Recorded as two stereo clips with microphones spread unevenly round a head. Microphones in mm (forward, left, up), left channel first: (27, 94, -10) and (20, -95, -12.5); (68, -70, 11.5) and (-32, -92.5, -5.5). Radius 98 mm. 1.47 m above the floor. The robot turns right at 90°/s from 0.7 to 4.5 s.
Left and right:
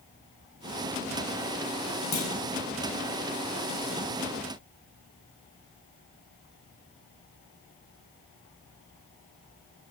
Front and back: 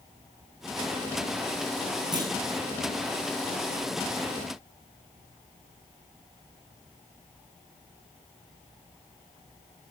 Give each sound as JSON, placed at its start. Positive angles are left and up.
{"t": 2.1, "sound": "a clunk", "azimuth_deg": 65, "distance_m": 9.5}